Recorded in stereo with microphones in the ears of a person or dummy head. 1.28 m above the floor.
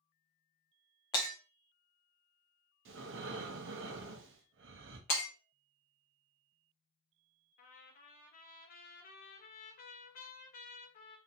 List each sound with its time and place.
1.1 s breaking glass: 25° left (ahead or behind), 0.8 m
2.9 s breathing: 60° right (ahead or behind), 0.7 m
5.1 s breaking glass: 40° left (ahead or behind), 0.9 m
7.6 s a trumpet: 45° left (ahead or behind), 0.6 m